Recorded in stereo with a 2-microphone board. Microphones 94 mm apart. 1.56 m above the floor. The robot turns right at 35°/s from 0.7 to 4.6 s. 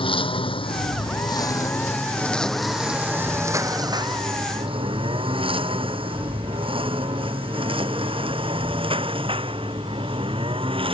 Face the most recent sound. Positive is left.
turn(degrees=-70)  # may be behind; listen again after turning